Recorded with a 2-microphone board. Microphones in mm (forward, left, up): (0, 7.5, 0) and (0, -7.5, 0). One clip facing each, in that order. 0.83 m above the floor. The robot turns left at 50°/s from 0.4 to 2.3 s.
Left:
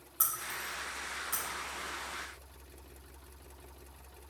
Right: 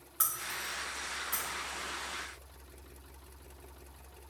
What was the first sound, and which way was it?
Breaking glass, 20° right (ahead or behind).